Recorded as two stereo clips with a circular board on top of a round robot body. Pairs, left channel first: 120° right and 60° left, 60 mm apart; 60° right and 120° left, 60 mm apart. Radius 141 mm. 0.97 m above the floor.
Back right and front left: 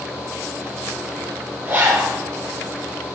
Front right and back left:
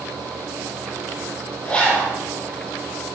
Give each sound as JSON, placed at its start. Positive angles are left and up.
{"t": 1.6, "sound": "a zipper", "azimuth_deg": 10, "distance_m": 4.5}